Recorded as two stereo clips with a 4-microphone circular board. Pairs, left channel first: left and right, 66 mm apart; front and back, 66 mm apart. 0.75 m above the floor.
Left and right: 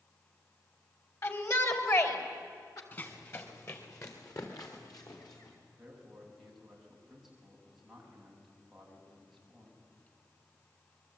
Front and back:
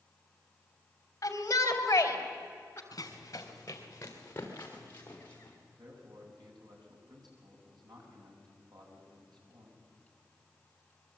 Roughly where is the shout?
Ahead left.